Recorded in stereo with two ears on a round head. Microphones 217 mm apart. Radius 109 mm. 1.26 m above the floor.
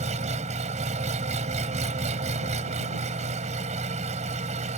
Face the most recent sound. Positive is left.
turn(degrees=-30)  # may be behind; listen again after turning